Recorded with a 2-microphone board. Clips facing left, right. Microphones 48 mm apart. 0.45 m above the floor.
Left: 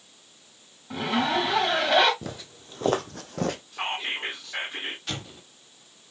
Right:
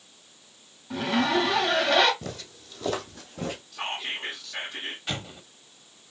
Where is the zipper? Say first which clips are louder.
Right 1 dB; 15° left (ahead or behind), 1.3 m.